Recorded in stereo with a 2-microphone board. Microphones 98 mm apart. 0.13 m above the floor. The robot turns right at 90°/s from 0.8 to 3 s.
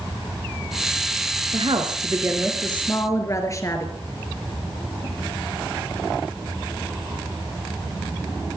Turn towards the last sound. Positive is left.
turn(degrees=40)